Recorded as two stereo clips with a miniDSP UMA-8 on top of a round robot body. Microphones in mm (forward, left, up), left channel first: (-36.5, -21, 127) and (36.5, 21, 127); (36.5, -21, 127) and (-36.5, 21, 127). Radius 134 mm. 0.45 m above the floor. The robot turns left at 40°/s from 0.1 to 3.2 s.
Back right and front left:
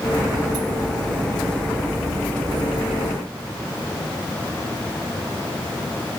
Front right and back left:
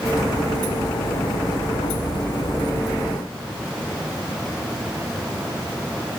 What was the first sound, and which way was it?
Only background noise.